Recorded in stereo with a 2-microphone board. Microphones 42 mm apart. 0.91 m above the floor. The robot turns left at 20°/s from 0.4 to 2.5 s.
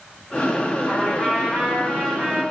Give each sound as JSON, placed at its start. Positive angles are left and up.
{"t": 0.8, "sound": "a trumpet", "azimuth_deg": 15, "distance_m": 3.0}